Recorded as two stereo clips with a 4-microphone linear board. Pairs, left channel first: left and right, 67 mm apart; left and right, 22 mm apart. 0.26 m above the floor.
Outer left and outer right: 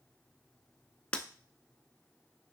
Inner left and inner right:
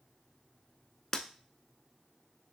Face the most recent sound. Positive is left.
turn(degrees=15)  # may be behind; listen again after turning